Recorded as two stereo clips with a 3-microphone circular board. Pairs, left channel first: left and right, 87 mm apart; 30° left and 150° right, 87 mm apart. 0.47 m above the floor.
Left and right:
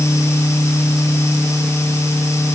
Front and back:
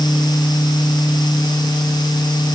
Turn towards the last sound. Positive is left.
No sound to turn to.